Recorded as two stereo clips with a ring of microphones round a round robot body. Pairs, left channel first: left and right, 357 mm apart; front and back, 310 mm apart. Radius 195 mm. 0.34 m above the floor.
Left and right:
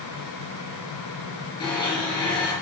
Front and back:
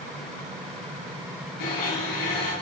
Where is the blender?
10° left, 5.5 m.